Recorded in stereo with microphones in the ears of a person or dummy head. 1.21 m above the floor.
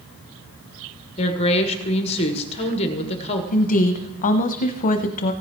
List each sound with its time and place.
1.2 s a woman speaking: 35° left (ahead or behind), 1.4 m
3.5 s a woman speaking: 35° left (ahead or behind), 0.8 m